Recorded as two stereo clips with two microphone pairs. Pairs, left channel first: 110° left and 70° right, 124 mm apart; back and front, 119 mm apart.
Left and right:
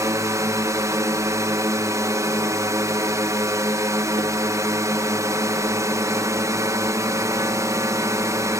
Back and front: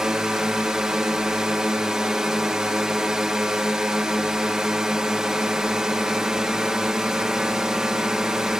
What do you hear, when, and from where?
0.0 s a drone: 80° right